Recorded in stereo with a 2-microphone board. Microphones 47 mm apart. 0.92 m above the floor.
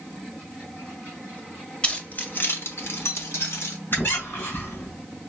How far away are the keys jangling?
About 0.9 m.